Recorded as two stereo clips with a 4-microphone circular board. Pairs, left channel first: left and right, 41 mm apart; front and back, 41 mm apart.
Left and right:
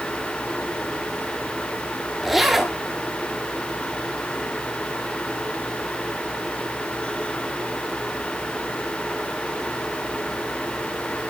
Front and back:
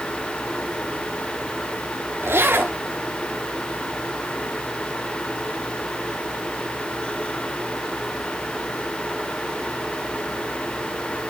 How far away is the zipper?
About 1.1 m.